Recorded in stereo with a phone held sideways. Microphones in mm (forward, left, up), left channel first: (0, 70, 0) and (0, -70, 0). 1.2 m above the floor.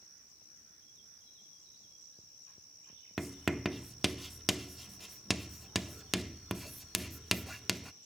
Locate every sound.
3.2 s writing: centre (ahead or behind), 0.7 m